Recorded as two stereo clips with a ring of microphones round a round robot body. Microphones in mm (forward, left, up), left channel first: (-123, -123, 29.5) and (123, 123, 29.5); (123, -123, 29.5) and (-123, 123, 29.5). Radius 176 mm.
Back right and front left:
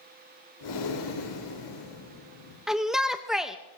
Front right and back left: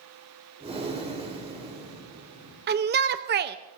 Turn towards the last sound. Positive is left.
turn(degrees=130)